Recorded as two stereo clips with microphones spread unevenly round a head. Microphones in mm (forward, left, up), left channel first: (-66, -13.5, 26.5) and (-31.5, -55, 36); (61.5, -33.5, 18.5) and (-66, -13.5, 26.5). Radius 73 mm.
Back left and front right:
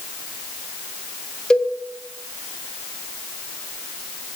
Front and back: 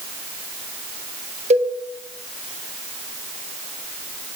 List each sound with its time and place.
1.5 s a cowbell: 155° right, 1.4 m